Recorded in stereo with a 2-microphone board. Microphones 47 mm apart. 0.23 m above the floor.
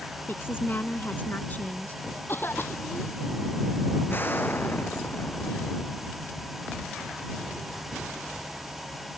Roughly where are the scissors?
I don't hear scissors.